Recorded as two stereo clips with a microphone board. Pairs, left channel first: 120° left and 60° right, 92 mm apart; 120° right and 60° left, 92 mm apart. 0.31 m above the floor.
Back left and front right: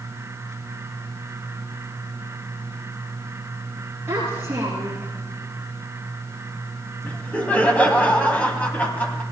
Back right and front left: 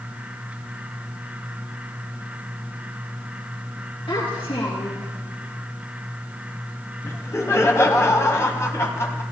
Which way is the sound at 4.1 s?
125° right.